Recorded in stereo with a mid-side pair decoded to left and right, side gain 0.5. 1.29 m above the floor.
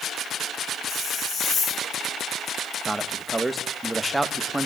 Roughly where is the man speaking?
Ahead.